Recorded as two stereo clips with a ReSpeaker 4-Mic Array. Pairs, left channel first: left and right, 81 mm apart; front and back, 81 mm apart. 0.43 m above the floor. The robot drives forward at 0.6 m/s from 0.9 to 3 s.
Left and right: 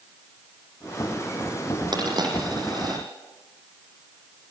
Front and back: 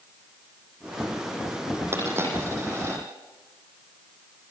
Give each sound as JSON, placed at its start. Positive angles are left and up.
{"t": 1.9, "sound": "a dropped coin", "azimuth_deg": -120, "distance_m": 9.5}